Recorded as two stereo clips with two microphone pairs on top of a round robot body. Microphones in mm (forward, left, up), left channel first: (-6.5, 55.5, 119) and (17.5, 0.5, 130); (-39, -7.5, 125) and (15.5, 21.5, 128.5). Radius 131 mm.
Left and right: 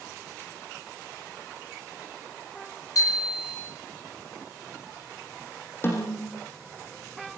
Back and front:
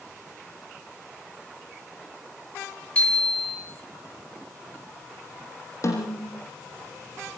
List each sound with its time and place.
3.0 s a bicycle bell: 135° left, 10 m
5.8 s a snare drum: 165° left, 6.5 m